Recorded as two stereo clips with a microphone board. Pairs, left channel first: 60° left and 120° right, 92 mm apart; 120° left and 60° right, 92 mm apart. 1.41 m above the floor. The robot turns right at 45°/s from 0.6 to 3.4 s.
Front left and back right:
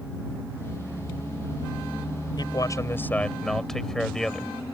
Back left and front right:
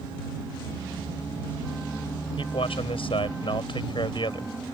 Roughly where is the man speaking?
Left.